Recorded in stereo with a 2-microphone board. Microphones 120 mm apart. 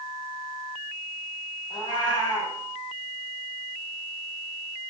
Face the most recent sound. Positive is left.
turn(degrees=35)  # may be behind; listen again after turning